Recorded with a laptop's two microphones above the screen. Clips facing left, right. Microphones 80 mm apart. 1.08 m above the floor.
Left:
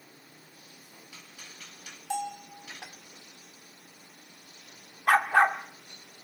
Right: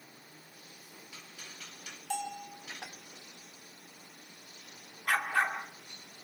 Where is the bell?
15° left (ahead or behind), 2.5 m.